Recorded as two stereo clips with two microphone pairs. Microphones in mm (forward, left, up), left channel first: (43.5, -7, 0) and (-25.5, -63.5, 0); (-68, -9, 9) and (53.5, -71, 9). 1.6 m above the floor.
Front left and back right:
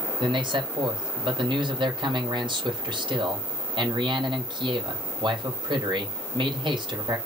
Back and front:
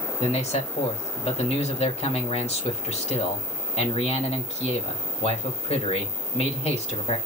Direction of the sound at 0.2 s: 165° right.